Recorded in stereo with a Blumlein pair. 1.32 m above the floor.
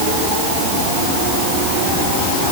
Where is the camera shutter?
I don't hear a camera shutter.